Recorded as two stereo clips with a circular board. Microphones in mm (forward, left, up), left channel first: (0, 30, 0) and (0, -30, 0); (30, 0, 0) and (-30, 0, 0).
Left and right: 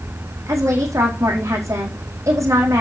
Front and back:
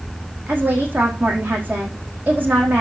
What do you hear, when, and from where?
0.5 s a woman speaking: 120° right, 5 m